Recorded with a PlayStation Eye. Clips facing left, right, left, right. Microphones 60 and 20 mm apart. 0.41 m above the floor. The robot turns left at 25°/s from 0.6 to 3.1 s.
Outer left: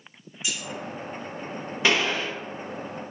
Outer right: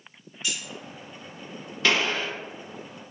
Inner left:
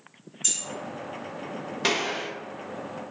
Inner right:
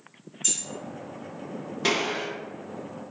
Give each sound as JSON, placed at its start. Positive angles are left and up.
{"t": 0.4, "sound": "keys jangling", "side_deg": 10, "distance_m": 1.4}
{"t": 1.8, "sound": "a gunshot", "side_deg": 20, "distance_m": 1.3}